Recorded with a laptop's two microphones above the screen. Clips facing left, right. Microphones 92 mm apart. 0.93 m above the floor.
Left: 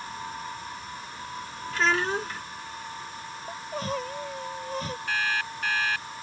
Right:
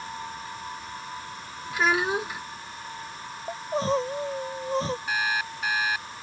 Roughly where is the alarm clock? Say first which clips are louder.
Right 1 dB; centre.